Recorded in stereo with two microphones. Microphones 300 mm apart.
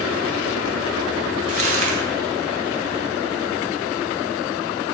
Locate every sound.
1.5 s crumpling: 40° left (ahead or behind), 2.5 m